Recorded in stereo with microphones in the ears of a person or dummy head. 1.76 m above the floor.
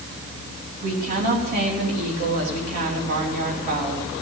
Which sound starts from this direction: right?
A woman speaking, at 0.8 s.